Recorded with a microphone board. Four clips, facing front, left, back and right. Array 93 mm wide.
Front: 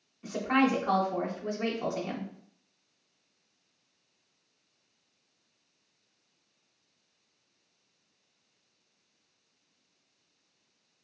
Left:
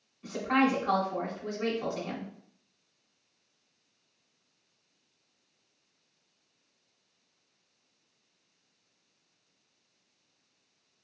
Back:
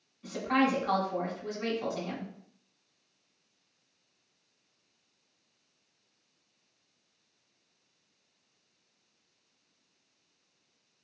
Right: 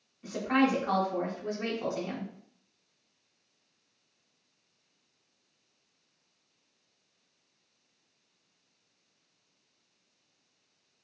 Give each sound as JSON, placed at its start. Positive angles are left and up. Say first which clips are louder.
{"t": 0.2, "sound": "a woman speaking", "louder": "even, front 1 dB", "azimuth_deg": -15, "distance_m": 0.9}